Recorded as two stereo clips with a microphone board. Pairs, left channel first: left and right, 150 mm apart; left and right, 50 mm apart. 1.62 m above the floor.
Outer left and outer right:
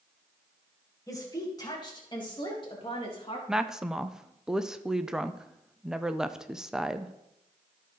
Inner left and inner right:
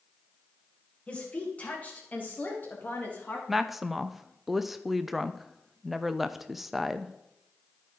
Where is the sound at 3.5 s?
5° right (ahead or behind), 0.5 m.